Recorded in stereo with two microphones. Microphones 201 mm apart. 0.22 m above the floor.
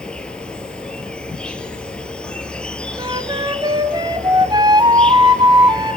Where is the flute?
25° right (ahead or behind), 1.5 m.